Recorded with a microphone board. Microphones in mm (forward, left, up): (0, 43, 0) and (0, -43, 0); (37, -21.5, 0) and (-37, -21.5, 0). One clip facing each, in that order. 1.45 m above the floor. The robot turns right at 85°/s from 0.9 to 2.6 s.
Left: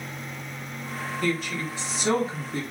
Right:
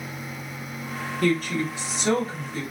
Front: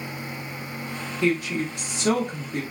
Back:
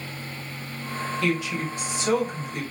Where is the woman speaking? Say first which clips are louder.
Right 5 dB, front 4 dB; 65° right, 1.3 m; by 2.6 s 55° left, 1.3 m.